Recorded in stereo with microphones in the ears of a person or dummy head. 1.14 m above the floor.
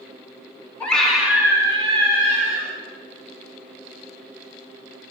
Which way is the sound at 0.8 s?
5° left (ahead or behind).